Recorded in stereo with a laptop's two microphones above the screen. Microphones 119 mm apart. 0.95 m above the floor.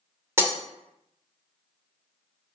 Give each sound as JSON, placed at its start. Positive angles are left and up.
{"t": 0.4, "sound": "breaking glass", "side_deg": -20, "distance_m": 1.6}